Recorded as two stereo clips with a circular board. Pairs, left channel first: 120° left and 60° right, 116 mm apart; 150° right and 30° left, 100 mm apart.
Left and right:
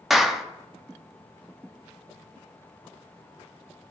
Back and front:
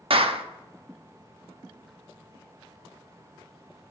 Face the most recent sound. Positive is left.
turn(degrees=30)